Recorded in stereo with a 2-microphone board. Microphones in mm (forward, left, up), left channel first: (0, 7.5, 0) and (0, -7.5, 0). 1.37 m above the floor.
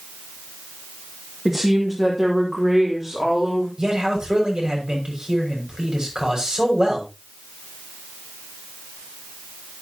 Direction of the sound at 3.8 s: 60° right (ahead or behind).